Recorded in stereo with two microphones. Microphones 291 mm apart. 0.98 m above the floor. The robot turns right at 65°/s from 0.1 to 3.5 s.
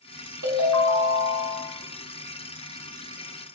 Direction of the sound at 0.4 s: 80° right.